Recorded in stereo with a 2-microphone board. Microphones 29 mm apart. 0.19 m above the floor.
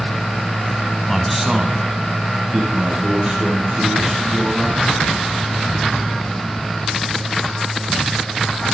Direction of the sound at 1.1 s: 10° left (ahead or behind).